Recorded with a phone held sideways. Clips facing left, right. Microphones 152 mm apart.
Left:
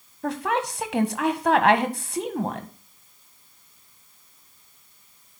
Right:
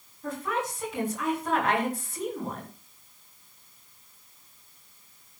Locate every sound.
0.2 s a woman speaking: 75° left (ahead or behind), 1.6 m